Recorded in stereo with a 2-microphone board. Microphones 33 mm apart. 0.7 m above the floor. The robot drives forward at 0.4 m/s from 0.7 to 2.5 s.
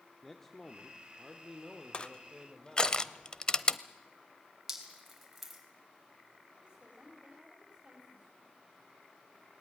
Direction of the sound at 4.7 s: 10° right (ahead or behind).